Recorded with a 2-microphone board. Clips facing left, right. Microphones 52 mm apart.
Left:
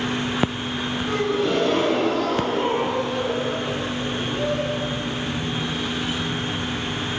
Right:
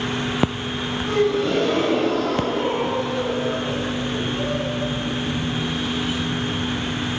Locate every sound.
1.1 s a gasp: 10° left (ahead or behind), 4 m